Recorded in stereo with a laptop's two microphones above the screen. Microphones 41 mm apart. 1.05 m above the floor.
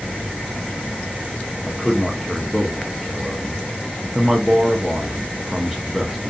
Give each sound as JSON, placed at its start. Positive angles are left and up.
{"t": 1.7, "sound": "a man speaking", "side_deg": -5, "distance_m": 0.6}